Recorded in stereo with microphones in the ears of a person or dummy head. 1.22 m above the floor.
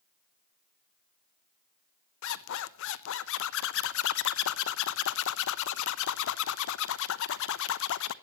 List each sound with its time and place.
2.2 s a zipper: 60° left (ahead or behind), 0.8 m